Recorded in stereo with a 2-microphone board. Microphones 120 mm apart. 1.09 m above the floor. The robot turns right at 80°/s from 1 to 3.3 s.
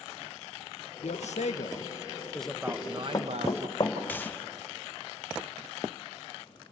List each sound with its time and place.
1.0 s a man speaking: 65° left, 0.7 m; by 3.7 s 115° right, 0.7 m
2.7 s running footsteps: 45° left (ahead or behind), 1.7 m; by 3.9 s 35° left (ahead or behind), 3 m
4.1 s a gunshot: 15° left (ahead or behind), 0.7 m